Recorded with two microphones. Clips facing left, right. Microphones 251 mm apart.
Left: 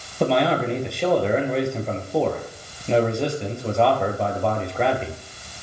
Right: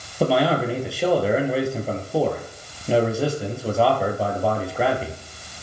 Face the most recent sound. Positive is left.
turn(degrees=-5)  # may be behind; listen again after turning